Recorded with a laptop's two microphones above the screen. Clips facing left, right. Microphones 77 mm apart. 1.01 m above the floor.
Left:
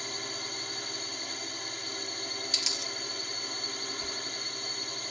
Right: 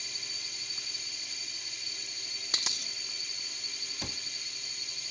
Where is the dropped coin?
40° right (ahead or behind).